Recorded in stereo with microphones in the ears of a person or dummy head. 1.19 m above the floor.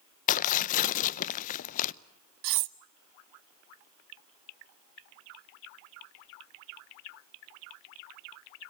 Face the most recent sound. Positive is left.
turn(degrees=-60)  # may be behind; listen again after turning